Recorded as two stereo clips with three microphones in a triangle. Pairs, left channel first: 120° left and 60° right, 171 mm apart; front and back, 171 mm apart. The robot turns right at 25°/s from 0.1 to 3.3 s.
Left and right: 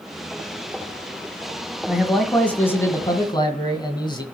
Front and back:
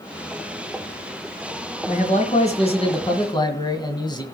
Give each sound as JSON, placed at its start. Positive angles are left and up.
{"t": 1.9, "sound": "a man speaking", "azimuth_deg": 25, "distance_m": 2.0}